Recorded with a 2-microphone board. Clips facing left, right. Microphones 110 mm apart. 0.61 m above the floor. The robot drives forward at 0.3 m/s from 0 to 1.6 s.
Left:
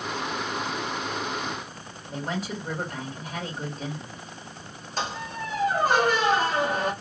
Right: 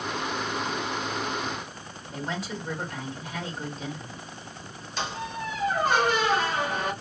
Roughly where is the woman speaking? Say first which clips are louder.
Left 2 dB; left.